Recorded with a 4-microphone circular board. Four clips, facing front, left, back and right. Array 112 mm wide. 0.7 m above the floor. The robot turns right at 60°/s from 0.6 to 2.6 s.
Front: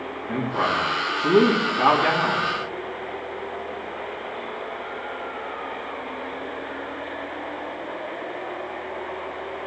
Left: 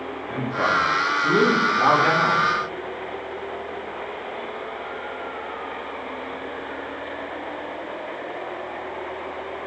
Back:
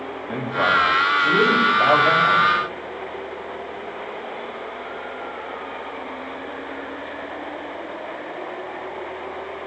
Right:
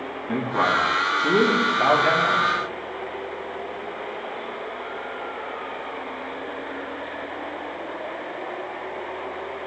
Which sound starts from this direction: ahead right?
A man speaking, at 0.3 s.